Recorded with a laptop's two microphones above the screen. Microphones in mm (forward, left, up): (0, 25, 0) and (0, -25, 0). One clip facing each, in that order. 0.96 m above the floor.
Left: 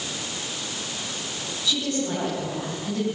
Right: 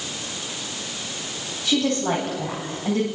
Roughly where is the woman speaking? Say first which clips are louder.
Right 5 dB; right.